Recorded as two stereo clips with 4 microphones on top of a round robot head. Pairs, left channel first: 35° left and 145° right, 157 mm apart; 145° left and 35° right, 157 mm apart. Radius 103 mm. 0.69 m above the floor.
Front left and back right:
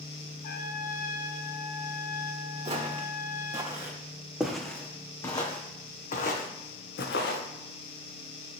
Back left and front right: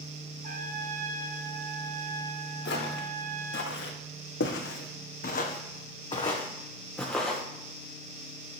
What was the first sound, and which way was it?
A trumpet, 5° left.